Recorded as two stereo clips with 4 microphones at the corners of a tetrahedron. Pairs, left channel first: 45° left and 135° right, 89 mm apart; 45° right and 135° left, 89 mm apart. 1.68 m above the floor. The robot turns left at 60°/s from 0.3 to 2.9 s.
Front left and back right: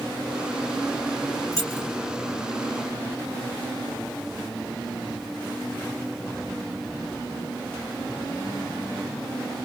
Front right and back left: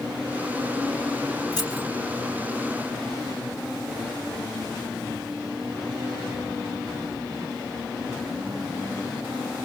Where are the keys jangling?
Straight ahead, 6 m; by 1.9 s 20° right, 6 m.